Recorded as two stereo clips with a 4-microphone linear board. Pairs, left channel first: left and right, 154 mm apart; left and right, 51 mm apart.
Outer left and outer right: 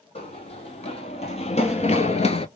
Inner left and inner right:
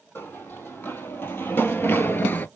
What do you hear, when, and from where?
0.1 s running footsteps: 40° left (ahead or behind), 1.5 m